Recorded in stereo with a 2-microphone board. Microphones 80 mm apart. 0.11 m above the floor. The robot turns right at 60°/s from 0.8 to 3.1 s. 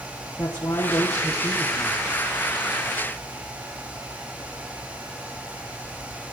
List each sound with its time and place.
0.4 s a man speaking: 110° left, 3 m; by 2.0 s straight behind, 3 m